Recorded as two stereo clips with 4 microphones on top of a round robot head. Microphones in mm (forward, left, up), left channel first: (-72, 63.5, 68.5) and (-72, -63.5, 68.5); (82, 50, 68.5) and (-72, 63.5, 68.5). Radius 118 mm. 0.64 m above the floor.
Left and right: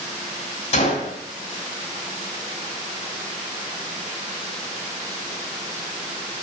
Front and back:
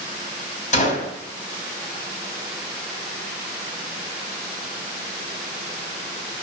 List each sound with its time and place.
0.7 s a gunshot: 35° left, 3.5 m